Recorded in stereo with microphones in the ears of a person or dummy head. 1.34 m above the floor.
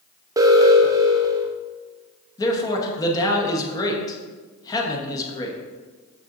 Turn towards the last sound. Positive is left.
turn(degrees=20)  # may be behind; listen again after turning